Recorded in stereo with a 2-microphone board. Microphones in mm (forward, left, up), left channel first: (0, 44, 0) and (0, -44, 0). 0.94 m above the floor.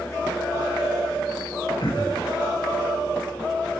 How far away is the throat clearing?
About 8.5 m.